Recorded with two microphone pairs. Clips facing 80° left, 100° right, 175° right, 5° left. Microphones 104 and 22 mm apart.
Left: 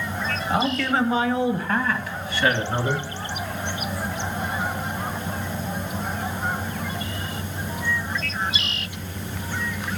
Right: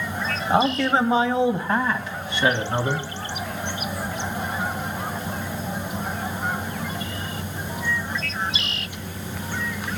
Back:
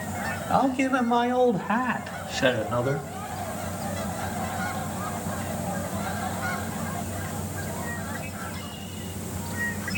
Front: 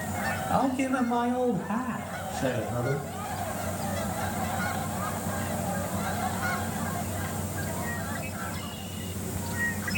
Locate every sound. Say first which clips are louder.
0.5 s a man speaking: right 4 dB, back 4 dB; 125° right, 1.0 m; by 3.1 s 170° right, 1.8 m